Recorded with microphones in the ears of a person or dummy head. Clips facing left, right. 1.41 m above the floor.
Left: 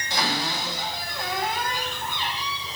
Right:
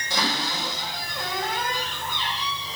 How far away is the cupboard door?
About 6.5 m.